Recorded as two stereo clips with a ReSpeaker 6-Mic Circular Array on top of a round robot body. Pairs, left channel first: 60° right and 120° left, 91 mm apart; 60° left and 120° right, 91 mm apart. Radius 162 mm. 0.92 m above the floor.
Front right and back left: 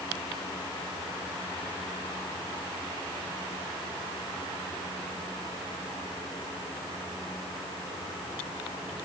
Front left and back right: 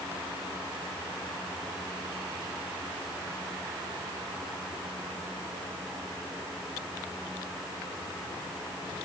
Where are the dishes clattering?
No dishes clattering in this recording.